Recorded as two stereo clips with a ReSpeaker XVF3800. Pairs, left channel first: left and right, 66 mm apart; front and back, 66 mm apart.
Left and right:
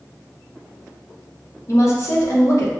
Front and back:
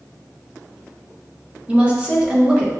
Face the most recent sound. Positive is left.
turn(degrees=115)